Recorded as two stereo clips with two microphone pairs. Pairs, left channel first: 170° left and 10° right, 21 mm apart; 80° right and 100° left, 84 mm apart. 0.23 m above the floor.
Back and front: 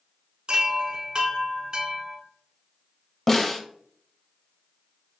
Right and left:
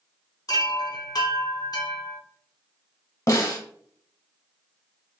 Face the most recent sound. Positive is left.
turn(degrees=-120)